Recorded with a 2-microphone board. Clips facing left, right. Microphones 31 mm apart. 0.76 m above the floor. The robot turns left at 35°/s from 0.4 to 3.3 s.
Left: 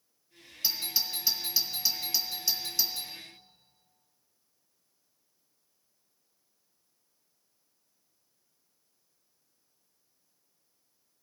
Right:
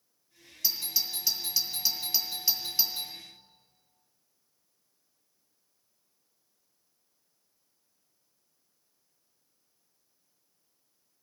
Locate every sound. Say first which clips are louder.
0.6 s a doorbell: left 1 dB; 25° left (ahead or behind), 1.1 m; by 3.1 s 35° right (ahead or behind), 1.1 m